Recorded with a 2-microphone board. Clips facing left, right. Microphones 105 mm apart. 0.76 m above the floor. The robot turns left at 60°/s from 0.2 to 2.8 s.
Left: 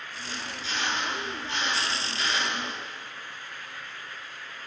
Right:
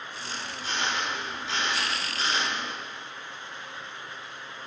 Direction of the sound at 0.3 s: 30° right.